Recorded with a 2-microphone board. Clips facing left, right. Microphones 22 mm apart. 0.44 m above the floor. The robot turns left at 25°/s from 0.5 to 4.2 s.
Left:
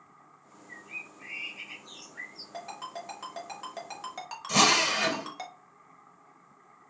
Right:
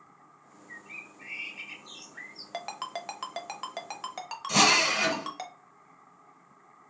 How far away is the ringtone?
About 0.6 m.